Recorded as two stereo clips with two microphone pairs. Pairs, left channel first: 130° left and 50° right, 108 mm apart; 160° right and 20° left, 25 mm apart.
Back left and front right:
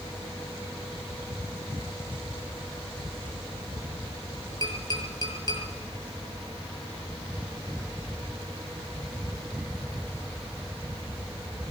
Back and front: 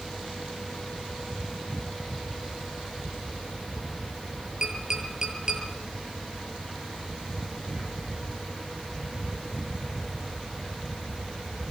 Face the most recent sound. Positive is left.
turn(degrees=80)